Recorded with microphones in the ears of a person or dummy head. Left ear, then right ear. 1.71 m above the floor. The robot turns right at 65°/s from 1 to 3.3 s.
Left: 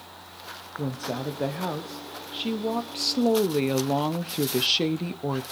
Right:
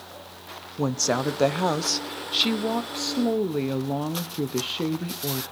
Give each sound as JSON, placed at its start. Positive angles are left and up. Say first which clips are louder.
{"t": 0.8, "sound": "a woman speaking", "louder": "right 8 dB", "azimuth_deg": -115, "distance_m": 0.8}